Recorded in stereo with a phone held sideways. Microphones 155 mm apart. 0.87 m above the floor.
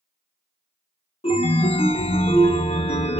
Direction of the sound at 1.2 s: 40° left (ahead or behind).